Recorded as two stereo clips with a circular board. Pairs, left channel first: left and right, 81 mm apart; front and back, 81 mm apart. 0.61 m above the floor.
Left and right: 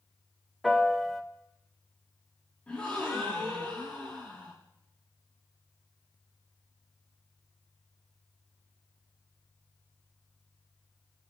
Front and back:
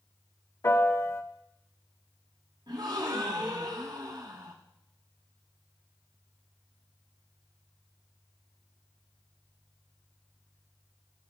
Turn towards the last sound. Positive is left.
turn(degrees=165)